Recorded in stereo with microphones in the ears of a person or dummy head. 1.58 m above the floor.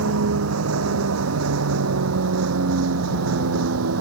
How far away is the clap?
I don't hear a clap.